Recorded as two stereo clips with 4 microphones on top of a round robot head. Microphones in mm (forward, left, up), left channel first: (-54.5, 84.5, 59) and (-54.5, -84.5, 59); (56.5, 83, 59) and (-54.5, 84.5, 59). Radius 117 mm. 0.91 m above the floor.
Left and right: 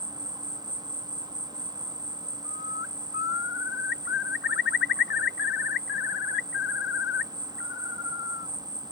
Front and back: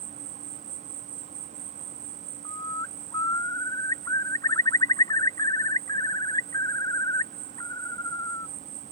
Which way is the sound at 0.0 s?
155° right.